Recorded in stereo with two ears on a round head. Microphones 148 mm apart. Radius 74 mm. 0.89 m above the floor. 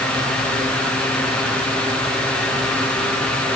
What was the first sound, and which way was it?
Only background noise.